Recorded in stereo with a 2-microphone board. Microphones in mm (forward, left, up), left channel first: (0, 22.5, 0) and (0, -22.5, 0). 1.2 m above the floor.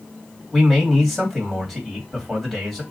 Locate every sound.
0.5 s a man speaking: 5° right (ahead or behind), 2 m